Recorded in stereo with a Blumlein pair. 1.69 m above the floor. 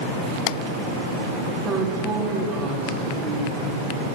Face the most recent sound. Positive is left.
turn(degrees=-30)